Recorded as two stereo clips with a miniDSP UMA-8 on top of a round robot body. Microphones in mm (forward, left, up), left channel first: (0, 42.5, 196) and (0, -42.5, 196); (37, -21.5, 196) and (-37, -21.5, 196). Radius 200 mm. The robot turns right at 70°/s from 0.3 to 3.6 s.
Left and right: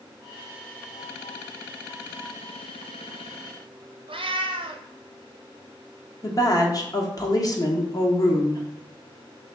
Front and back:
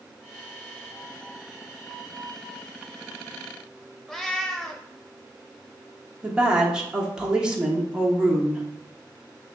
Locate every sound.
4.1 s a cat meowing: 85° right, 0.7 m
6.2 s a woman speaking: 105° left, 1.1 m